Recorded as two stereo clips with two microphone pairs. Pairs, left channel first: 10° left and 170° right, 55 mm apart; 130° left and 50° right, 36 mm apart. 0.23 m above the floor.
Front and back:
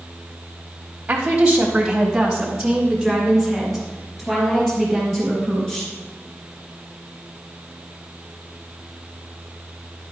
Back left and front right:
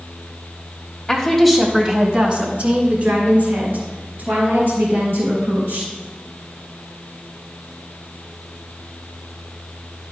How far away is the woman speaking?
About 1.3 m.